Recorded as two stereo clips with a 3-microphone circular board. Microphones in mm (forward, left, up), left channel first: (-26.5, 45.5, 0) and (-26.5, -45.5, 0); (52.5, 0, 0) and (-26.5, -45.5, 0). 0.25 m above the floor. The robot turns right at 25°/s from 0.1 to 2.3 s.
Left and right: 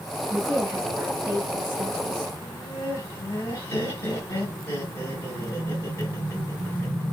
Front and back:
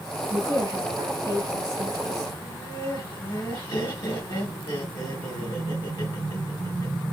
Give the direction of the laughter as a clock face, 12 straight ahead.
11 o'clock.